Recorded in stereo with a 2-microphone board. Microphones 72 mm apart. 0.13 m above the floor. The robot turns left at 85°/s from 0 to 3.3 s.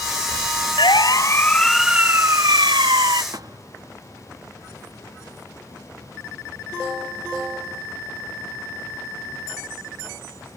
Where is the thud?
50° right (ahead or behind).